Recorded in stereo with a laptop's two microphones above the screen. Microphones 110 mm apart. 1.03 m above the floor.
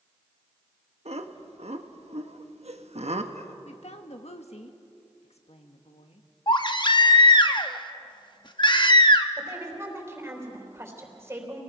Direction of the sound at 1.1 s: 70° right (ahead or behind).